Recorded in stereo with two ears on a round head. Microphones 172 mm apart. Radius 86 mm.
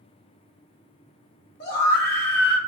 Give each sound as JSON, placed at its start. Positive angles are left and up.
{"t": 1.6, "sound": "a scream", "side_deg": 55, "distance_m": 1.5}